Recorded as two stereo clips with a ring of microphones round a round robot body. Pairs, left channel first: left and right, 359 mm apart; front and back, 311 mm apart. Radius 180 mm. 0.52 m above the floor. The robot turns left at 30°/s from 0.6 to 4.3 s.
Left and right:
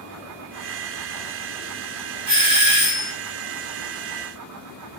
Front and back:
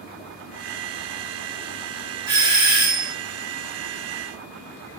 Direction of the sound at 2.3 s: 100° right.